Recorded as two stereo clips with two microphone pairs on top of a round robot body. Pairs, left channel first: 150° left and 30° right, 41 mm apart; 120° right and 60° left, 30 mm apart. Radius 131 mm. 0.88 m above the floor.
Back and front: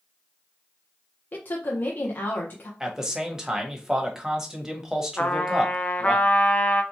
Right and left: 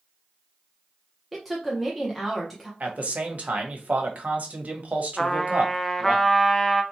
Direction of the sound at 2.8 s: 45° left.